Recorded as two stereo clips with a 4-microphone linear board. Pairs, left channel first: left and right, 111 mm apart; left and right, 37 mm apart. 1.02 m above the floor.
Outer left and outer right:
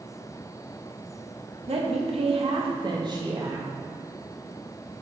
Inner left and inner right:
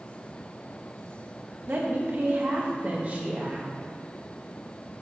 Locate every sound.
1.7 s a woman speaking: 65° right (ahead or behind), 1.5 m; by 3.7 s 30° right (ahead or behind), 1.7 m